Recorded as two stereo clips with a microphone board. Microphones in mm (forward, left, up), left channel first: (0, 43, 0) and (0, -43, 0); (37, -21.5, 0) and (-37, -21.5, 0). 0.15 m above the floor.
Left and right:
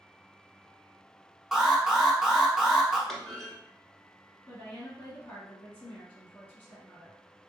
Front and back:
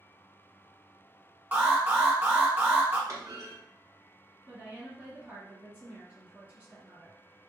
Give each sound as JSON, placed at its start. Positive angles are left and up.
{"t": 1.5, "sound": "an alarm", "azimuth_deg": -170, "distance_m": 1.1}
{"t": 3.1, "sound": "a clunk", "azimuth_deg": 175, "distance_m": 1.2}
{"t": 4.5, "sound": "a woman speaking", "azimuth_deg": 135, "distance_m": 1.9}